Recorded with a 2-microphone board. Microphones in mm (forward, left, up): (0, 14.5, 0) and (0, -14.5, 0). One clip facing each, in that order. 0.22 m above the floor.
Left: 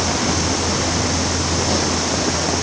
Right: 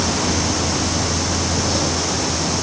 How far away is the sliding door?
I don't hear a sliding door.